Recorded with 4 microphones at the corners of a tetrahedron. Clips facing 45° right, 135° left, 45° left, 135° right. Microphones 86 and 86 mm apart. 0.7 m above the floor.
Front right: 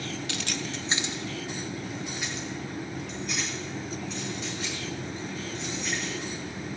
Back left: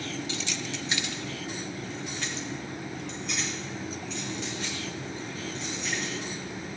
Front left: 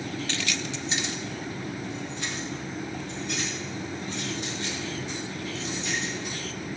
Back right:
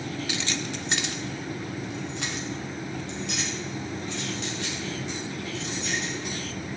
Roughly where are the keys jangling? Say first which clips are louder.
Front right 1 dB, back right 1 dB; ahead right.